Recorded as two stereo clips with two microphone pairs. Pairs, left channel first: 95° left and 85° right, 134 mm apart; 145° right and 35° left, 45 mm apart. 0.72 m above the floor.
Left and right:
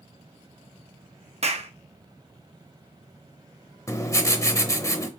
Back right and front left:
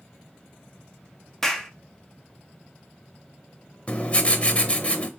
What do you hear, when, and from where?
1.4 s a clap: 65° right, 0.7 m
3.9 s writing: 160° left, 0.7 m